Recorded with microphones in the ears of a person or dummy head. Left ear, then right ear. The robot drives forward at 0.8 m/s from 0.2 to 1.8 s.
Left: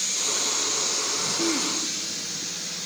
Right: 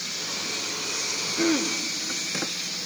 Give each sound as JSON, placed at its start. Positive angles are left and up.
{"t": 1.4, "sound": "throat clearing", "side_deg": -35, "distance_m": 0.8}